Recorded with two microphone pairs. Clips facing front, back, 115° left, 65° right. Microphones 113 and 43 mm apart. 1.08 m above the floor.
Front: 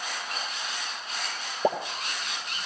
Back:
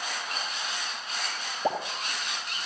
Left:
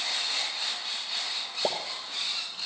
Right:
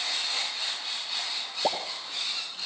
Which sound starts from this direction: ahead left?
A pop, at 1.6 s.